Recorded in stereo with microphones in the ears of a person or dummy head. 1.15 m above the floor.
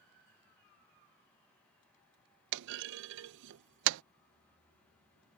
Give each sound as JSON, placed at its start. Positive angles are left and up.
{"t": 2.5, "sound": "a clunk", "side_deg": -70}